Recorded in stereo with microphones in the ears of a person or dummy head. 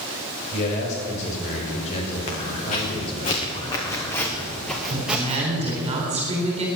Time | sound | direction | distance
0.5 | a man speaking | 45° left (ahead or behind) | 5.5 m
2.3 | footsteps | 50° left (ahead or behind) | 4.5 m
4.9 | a woman speaking | 30° right (ahead or behind) | 4 m